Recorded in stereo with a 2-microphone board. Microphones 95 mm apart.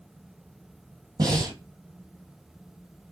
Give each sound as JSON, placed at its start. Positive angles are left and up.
{"t": 1.2, "sound": "breathing", "side_deg": -45, "distance_m": 1.5}